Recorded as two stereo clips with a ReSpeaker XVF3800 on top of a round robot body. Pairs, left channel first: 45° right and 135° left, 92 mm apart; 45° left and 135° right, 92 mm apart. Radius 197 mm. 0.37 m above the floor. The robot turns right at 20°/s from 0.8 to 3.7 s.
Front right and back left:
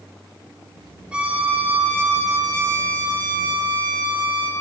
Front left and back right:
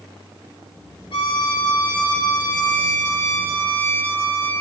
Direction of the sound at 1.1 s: 55° left.